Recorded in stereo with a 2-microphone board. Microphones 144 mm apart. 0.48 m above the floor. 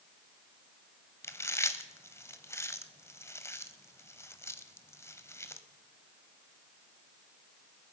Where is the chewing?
20° left (ahead or behind), 1.0 m.